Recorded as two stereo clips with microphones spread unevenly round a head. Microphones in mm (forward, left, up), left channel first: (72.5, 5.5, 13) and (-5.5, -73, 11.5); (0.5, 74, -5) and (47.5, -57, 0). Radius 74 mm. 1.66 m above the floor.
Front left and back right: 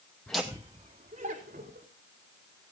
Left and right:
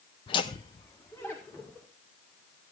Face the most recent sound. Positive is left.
turn(degrees=-170)